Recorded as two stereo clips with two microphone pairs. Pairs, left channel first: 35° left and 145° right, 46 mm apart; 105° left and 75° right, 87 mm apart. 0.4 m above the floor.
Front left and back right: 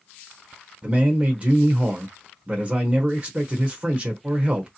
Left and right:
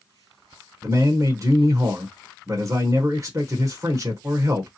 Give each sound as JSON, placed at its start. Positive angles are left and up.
{"t": 0.8, "sound": "a man speaking", "azimuth_deg": -100, "distance_m": 1.0}